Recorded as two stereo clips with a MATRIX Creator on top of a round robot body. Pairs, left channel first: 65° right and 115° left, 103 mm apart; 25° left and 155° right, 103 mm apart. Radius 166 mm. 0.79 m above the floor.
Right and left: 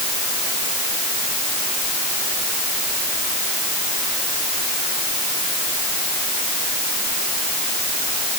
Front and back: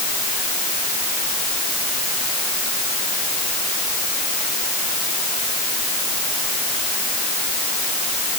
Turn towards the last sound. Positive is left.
No sound to turn to.